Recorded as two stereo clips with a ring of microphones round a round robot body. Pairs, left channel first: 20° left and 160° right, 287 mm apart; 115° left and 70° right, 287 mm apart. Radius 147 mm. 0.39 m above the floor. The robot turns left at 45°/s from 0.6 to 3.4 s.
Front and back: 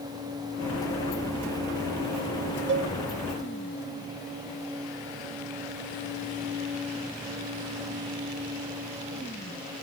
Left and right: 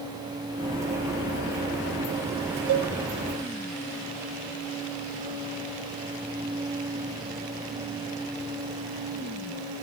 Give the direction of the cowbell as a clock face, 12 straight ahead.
4 o'clock.